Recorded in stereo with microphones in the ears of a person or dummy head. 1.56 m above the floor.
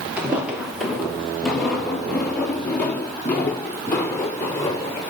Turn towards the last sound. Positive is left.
turn(degrees=20)  # may be behind; listen again after turning